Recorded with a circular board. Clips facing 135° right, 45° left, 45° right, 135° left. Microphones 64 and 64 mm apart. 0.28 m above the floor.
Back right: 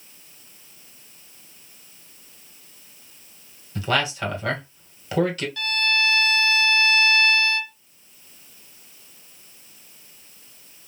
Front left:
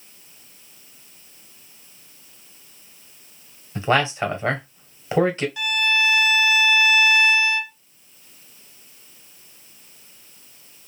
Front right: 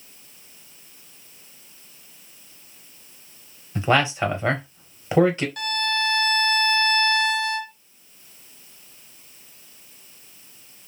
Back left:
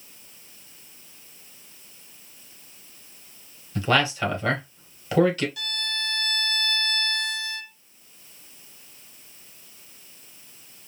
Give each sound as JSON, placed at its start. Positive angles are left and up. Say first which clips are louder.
{"t": 3.8, "sound": "a man speaking", "louder": "front left 4 dB, front right 2 dB", "azimuth_deg": 5, "distance_m": 1.2}
{"t": 5.6, "sound": "a violin", "louder": "even, front right 8 dB", "azimuth_deg": -25, "distance_m": 0.8}